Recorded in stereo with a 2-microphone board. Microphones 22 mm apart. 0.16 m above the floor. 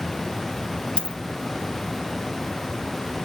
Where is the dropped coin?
50° left (ahead or behind), 1.0 m.